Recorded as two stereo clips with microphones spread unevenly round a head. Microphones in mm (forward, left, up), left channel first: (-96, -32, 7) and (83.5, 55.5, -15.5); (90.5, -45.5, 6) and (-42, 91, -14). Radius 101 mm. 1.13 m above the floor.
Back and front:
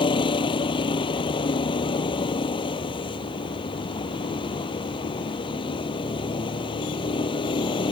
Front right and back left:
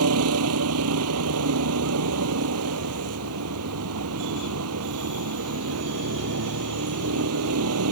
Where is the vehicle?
140° left.